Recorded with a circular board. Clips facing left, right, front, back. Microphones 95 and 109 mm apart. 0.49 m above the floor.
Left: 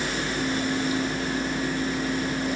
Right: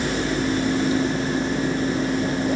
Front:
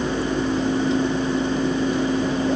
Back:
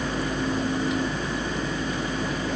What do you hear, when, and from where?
Only background noise.